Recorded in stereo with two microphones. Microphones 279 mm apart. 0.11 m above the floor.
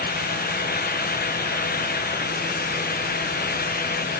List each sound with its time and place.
Only background noise.